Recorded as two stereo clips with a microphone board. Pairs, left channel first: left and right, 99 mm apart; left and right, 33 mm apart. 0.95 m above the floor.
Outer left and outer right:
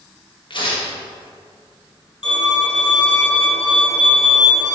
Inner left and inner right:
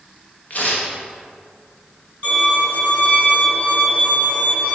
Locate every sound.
0.5 s tearing paper: 50° left (ahead or behind), 1.3 m
2.2 s a violin: 45° left (ahead or behind), 1.8 m